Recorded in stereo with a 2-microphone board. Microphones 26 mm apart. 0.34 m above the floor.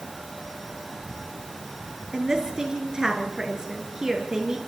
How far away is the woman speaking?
About 4.5 m.